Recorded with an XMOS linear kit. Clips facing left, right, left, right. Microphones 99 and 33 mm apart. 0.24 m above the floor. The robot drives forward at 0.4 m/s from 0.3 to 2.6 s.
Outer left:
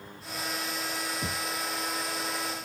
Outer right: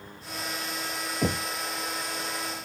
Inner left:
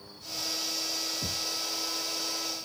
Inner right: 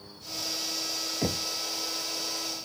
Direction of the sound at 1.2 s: 65° right (ahead or behind).